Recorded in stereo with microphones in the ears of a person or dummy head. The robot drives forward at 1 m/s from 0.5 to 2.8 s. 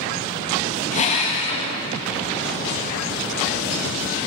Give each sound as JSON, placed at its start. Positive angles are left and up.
{"t": 0.9, "sound": "a drill", "side_deg": 35, "distance_m": 1.9}